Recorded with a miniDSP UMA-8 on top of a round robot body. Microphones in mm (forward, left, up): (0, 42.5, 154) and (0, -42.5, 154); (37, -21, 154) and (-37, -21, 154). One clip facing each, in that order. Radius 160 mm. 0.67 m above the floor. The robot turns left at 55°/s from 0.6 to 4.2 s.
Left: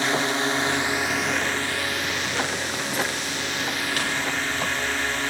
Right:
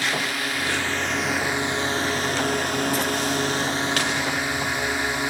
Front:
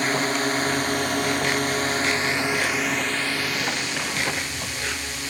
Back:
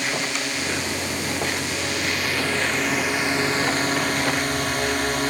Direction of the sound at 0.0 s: 35° left.